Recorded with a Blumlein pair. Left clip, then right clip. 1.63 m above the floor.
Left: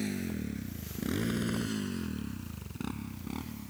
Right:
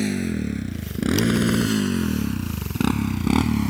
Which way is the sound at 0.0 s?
60° right.